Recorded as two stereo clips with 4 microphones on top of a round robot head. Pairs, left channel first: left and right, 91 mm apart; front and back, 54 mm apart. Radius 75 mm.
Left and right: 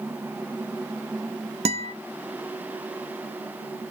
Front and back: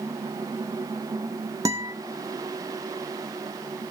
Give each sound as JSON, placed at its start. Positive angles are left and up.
{"t": 1.6, "sound": "a guitar", "azimuth_deg": -125, "distance_m": 0.5}